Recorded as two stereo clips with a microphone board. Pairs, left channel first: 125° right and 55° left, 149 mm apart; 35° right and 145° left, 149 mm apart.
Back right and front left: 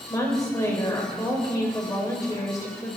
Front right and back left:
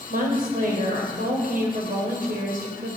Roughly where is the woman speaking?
Behind.